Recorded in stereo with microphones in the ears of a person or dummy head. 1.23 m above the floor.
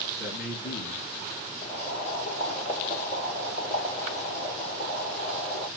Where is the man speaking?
60° left (ahead or behind), 2 m.